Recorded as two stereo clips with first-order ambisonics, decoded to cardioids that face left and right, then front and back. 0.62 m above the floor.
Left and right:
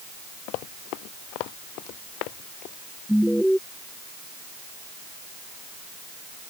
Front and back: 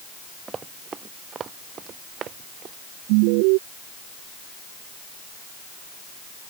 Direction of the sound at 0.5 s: 110° left.